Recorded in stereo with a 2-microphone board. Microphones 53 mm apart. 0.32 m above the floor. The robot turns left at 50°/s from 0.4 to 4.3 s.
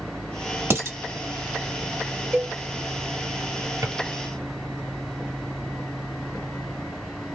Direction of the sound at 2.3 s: 35° right (ahead or behind).